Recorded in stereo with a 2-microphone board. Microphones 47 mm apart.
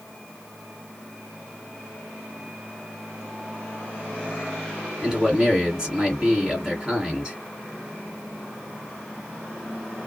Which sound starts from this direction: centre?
A man speaking, at 5.0 s.